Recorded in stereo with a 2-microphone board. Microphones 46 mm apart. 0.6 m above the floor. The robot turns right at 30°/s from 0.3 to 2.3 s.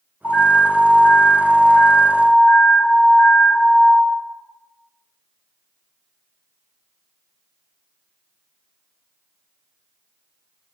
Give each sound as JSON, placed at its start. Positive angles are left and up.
{"t": 0.2, "sound": "an alarm", "azimuth_deg": 60, "distance_m": 1.4}